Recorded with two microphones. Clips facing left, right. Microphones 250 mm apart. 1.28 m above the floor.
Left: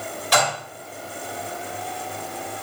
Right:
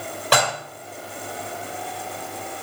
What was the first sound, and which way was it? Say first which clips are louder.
Dishes clattering: right 1 dB; 75° right (ahead or behind).